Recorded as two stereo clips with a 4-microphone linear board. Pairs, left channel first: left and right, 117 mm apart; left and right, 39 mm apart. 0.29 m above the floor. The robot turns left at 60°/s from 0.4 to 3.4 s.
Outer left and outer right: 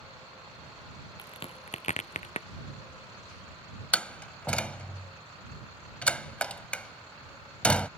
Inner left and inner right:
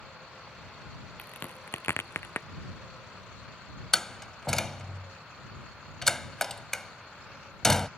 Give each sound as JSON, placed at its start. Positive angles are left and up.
{"t": 1.2, "sound": "a crack", "side_deg": 40}
{"t": 3.9, "sound": "a door slam", "side_deg": 10}